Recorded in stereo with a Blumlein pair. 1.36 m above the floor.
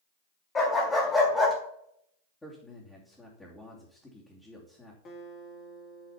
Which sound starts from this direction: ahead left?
A guitar, at 5.0 s.